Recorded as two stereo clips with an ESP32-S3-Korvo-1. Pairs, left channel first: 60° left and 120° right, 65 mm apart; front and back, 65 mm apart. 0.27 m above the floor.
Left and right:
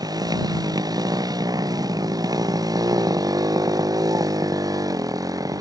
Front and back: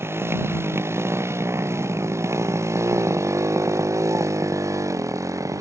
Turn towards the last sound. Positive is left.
turn(degrees=-145)